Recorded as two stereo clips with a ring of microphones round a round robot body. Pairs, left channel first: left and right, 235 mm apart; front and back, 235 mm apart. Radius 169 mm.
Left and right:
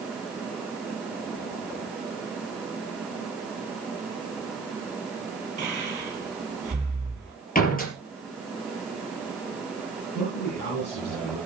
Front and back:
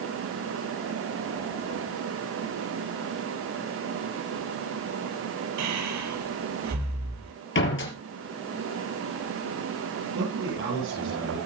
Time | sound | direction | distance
5.6 | breathing | 160° right | 4.5 m
7.5 | a door slam | 35° left | 4.5 m
10.2 | a man speaking | 150° left | 9 m